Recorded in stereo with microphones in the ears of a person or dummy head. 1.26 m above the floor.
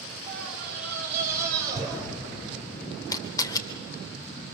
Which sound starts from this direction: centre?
A scream, at 0.3 s.